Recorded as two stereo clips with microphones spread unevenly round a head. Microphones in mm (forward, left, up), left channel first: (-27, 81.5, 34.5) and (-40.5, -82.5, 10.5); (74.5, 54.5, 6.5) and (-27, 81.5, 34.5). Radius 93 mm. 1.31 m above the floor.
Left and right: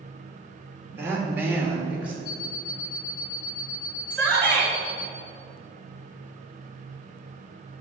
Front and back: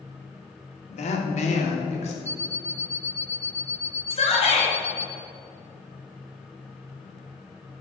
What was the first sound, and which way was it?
A woman speaking, 15° right.